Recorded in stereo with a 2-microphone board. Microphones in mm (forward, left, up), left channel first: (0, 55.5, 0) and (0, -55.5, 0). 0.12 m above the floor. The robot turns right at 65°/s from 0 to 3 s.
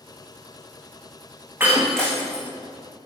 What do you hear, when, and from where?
1.6 s breaking glass: 20° right (ahead or behind), 3.5 m; by 2.5 s 35° left (ahead or behind), 3.5 m